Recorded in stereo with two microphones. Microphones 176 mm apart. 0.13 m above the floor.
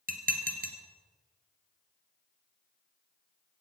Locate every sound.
0.1 s dishes clattering: 50° right (ahead or behind), 1.7 m